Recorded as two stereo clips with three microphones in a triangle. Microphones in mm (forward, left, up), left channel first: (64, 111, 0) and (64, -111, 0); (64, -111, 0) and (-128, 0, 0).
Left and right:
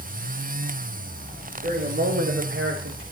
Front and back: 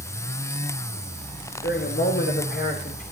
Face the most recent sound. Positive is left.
turn(degrees=-85)